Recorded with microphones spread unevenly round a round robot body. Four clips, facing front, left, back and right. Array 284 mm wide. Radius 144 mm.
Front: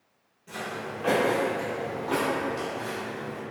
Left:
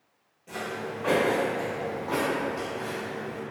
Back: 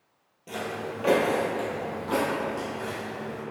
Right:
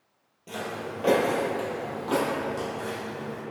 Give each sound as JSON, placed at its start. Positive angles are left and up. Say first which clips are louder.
{"t": 0.5, "sound": "footsteps", "louder": "even, back 2 dB", "azimuth_deg": -130, "distance_m": 0.9}